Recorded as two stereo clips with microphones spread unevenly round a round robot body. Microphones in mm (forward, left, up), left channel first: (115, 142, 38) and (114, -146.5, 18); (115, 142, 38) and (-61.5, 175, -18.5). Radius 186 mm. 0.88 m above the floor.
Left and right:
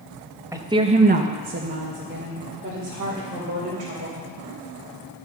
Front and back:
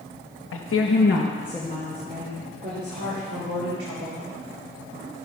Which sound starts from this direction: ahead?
A woman speaking, at 0.5 s.